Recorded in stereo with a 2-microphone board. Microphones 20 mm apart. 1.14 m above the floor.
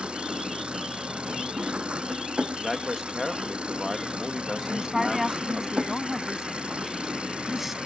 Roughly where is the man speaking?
Centre.